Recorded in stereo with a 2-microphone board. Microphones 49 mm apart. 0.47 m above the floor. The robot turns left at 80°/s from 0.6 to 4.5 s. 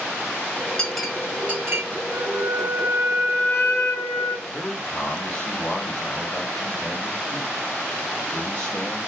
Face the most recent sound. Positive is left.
turn(degrees=30)  # may be behind; listen again after turning